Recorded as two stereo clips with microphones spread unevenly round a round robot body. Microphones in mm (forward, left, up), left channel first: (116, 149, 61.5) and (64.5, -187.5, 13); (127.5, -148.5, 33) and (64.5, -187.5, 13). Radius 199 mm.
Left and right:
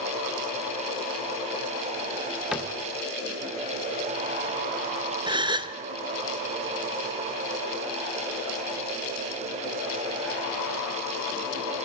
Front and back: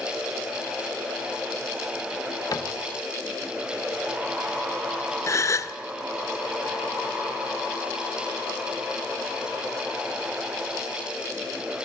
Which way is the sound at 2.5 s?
10° right.